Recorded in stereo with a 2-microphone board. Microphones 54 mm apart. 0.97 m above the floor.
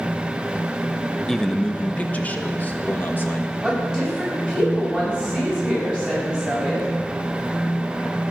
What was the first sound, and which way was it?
A man speaking, 5° left (ahead or behind).